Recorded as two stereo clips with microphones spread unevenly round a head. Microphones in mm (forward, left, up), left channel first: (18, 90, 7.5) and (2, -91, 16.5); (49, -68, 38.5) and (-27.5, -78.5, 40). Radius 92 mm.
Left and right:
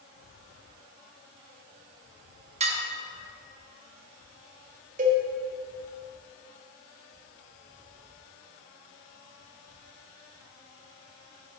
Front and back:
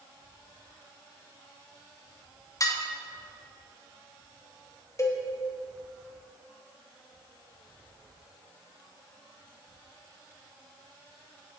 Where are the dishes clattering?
40° right, 0.8 m.